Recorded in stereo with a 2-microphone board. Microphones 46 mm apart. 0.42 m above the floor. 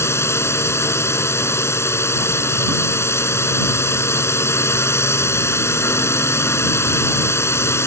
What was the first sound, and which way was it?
A drone, 65° left (ahead or behind).